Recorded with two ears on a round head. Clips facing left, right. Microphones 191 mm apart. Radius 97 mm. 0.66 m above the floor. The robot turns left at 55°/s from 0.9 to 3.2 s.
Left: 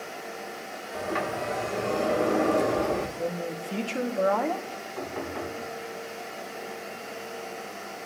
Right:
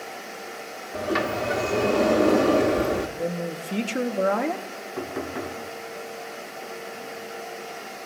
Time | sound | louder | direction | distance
0.9 | a sliding door | right 5 dB | 40° right | 1.2 m
3.2 | a man speaking | right 2 dB | 20° right (ahead or behind) | 1.2 m
5.0 | knocking | right 3 dB | 40° right (ahead or behind) | 4.5 m